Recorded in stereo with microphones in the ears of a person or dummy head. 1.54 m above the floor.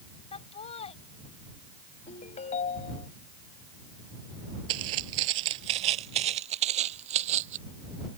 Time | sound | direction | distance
0.3 | laughter | 35° left (ahead or behind) | ?
2.1 | a ringtone | 40° left (ahead or behind) | ?
4.7 | footsteps | 25° right (ahead or behind) | ?